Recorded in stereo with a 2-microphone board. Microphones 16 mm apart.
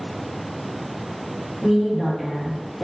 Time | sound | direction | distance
1.6 | a woman speaking | centre (ahead or behind) | 1.6 m